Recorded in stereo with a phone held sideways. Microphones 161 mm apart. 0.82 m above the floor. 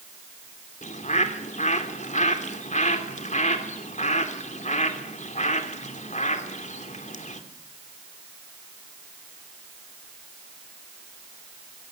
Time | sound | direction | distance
0.8 | a bird | 45° left (ahead or behind) | 3 m